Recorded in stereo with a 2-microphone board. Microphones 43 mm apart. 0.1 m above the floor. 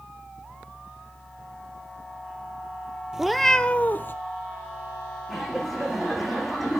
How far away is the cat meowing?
About 0.6 m.